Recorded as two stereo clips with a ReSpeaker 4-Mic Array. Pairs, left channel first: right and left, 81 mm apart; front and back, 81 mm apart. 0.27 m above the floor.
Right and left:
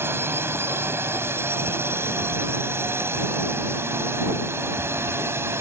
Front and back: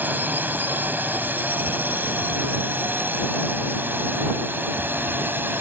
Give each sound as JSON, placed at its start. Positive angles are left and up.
{"t": 0.0, "sound": "a drone", "azimuth_deg": 130}